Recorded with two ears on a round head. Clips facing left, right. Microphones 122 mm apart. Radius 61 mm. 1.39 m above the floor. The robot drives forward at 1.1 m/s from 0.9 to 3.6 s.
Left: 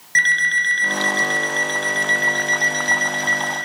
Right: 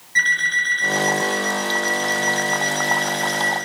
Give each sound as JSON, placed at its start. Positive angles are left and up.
{"t": 0.1, "sound": "an alarm clock", "side_deg": 75, "distance_m": 3.5}